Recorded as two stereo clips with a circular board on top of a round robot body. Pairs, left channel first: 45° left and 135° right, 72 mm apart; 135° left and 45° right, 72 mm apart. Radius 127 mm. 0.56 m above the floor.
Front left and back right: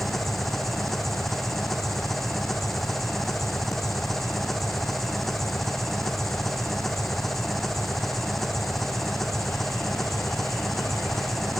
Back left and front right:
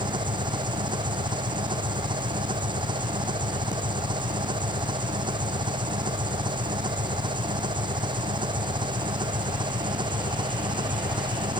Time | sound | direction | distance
0.0 | an engine running | 45° right | ?